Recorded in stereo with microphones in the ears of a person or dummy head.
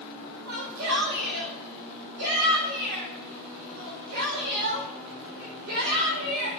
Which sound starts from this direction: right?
A shout, at 0.5 s.